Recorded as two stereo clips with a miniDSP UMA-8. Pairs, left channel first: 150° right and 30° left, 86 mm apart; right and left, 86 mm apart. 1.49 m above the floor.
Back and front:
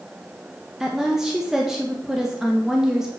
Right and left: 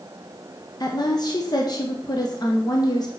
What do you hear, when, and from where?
0.8 s a woman speaking: 55° right, 0.9 m